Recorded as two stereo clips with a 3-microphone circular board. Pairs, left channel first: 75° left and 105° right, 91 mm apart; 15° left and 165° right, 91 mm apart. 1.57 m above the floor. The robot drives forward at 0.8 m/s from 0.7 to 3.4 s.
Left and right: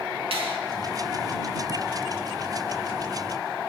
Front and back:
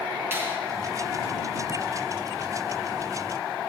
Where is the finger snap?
100° right, 2.5 m.